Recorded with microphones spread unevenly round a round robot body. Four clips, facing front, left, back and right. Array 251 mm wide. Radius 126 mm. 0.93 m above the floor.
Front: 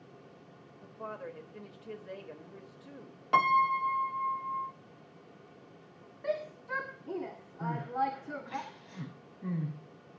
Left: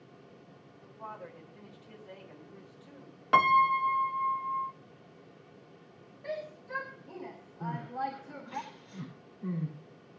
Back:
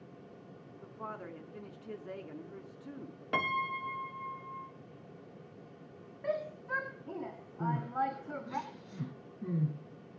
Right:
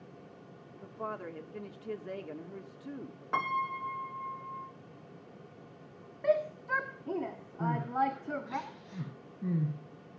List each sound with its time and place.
0.8 s a woman speaking: 105° right, 2 m
3.3 s a piano: 105° left, 0.5 m
6.2 s a shout: 80° right, 2 m
7.6 s crying: 140° right, 9.5 m